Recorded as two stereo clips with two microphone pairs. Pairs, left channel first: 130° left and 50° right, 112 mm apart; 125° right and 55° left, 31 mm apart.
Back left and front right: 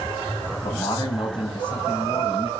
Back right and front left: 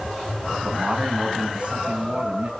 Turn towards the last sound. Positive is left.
turn(degrees=100)